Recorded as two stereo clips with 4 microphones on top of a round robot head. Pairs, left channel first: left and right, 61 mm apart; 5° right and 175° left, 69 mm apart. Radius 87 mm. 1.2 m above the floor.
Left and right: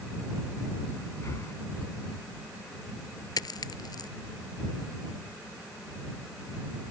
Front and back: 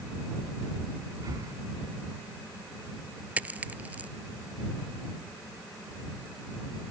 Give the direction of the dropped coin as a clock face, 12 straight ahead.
8 o'clock.